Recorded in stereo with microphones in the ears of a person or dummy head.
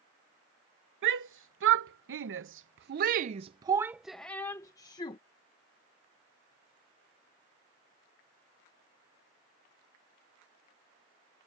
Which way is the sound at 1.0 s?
65° right (ahead or behind).